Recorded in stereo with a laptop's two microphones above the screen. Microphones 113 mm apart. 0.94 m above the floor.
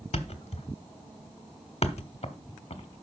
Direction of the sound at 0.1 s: 60° left (ahead or behind).